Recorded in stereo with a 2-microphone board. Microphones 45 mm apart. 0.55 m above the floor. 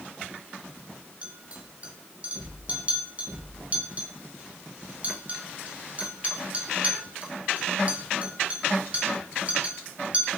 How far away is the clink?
About 1.4 m.